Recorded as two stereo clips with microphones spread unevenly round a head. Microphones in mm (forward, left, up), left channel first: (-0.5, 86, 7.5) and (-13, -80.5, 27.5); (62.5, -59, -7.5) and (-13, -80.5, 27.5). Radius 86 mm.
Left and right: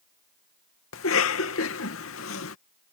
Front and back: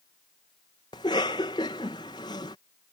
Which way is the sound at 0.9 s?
80° left.